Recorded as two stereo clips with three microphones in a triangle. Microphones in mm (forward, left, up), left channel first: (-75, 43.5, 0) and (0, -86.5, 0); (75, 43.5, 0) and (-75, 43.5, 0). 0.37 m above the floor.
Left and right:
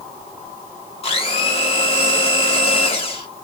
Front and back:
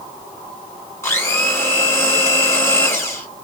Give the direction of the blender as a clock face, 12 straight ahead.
10 o'clock.